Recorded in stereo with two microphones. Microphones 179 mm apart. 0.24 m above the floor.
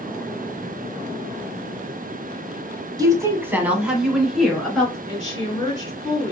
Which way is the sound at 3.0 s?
20° right (ahead or behind).